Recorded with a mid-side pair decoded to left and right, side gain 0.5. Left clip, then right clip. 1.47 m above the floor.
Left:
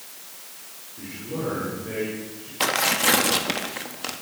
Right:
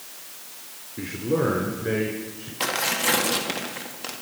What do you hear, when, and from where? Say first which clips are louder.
1.0 s a man speaking: right 8 dB; 60° right, 3.5 m; by 2.5 s 55° right, 5.5 m
2.6 s tearing paper: left 3 dB; 25° left, 1.9 m